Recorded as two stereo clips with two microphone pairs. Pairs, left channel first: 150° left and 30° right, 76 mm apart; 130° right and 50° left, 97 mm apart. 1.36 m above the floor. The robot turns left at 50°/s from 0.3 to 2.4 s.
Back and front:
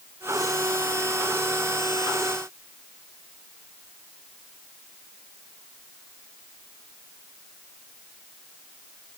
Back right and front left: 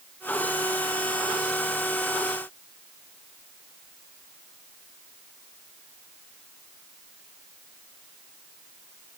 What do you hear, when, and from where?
Only background noise.